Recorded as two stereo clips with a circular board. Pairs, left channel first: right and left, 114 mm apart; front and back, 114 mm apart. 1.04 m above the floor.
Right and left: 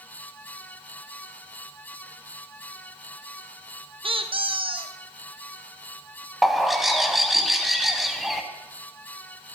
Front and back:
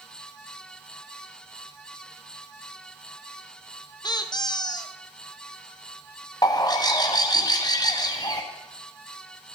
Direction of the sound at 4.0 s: 50° left.